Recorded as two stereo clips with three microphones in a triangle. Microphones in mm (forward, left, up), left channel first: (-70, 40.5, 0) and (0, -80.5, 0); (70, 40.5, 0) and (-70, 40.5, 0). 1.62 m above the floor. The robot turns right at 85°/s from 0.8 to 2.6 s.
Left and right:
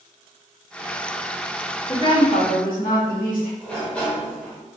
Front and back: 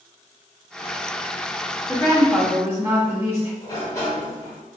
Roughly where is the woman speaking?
Ahead left.